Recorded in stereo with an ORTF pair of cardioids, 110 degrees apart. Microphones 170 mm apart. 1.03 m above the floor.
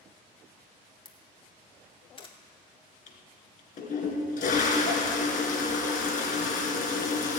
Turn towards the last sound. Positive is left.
turn(degrees=55)